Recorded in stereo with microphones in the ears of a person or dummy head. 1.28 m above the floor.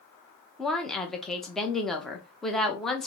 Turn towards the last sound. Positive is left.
turn(degrees=0)  # may be behind; listen again after turning